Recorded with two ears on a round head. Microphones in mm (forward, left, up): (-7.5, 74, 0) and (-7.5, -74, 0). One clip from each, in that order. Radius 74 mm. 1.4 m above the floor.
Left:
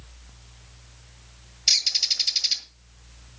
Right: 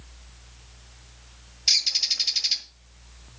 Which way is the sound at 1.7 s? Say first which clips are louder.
Left 1 dB; 15° left (ahead or behind).